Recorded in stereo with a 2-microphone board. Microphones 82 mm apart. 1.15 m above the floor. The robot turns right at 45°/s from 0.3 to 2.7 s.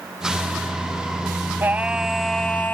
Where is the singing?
25° right; by 2.7 s 25° left.